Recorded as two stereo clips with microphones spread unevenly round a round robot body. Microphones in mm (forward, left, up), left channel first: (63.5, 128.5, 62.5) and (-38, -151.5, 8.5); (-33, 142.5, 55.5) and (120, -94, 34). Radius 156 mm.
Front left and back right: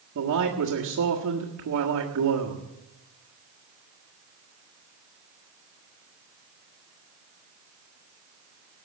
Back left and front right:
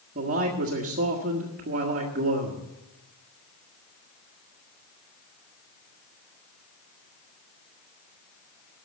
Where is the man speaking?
105° right, 1.7 m.